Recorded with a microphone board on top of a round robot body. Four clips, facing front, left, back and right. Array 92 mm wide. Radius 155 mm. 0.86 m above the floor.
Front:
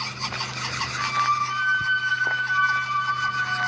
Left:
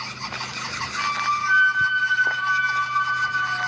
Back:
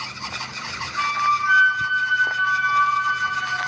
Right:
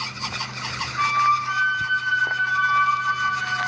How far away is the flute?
About 9.5 m.